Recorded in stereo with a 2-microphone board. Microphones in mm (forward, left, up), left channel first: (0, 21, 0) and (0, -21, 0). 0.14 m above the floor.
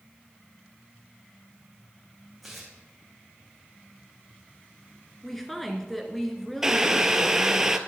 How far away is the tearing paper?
About 2.5 m.